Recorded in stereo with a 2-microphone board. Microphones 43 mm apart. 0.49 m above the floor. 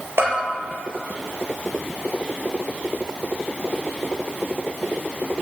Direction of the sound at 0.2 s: 55° right (ahead or behind).